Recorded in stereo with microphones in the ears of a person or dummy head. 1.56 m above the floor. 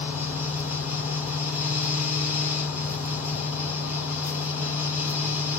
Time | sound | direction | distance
0.0 | a fan | 5° right (ahead or behind) | 1.3 m